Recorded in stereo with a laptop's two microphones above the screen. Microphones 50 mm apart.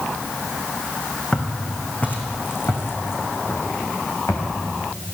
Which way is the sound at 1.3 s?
15° left (ahead or behind).